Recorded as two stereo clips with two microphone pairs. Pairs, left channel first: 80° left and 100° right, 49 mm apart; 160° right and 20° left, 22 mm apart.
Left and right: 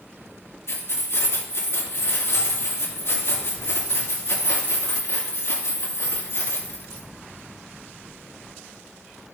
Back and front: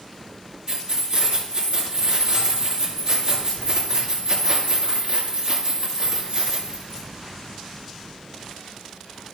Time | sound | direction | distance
0.7 | keys jangling | 65° left | 2.5 m